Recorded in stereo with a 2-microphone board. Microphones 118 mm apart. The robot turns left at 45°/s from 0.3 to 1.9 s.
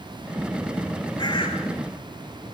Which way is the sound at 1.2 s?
35° left (ahead or behind).